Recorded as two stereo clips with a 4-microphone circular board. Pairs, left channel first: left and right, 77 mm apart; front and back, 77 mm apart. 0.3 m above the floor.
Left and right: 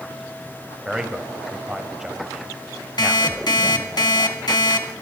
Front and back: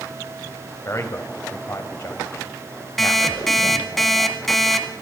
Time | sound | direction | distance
0.8 | a man speaking | 10° right | 1.1 m
3.0 | an alarm clock | 85° left | 1.5 m